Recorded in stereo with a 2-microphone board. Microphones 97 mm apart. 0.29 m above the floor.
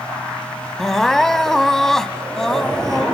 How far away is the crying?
About 0.5 m.